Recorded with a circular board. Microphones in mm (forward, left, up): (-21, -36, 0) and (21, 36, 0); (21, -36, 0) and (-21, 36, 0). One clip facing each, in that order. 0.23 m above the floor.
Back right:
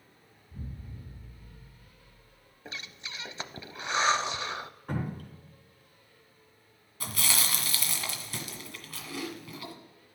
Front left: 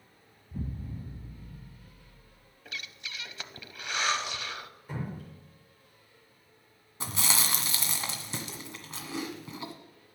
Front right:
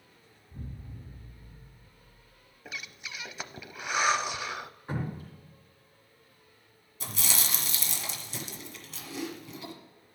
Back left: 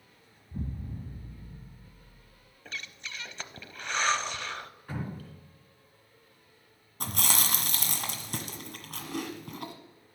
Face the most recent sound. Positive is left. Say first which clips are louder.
# front left 1 dB, back left 4 dB
turn(degrees=120)